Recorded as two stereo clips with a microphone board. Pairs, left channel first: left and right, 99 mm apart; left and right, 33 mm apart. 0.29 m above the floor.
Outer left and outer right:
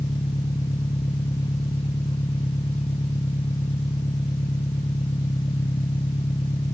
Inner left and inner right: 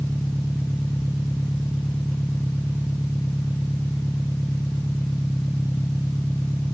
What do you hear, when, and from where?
0.0 s an engine running: 85° left